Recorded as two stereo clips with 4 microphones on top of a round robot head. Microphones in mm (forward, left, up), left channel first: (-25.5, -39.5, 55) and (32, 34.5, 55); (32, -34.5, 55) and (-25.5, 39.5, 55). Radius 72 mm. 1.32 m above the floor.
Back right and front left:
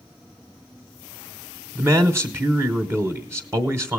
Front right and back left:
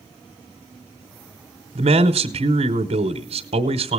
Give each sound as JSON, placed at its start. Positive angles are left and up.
{"t": 1.8, "sound": "a man speaking", "azimuth_deg": 115, "distance_m": 0.9}